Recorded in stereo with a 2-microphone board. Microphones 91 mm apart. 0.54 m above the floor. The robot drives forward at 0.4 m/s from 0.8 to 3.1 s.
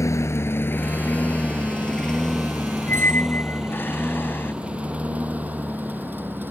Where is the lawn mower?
35° left (ahead or behind); by 6.5 s 20° right (ahead or behind).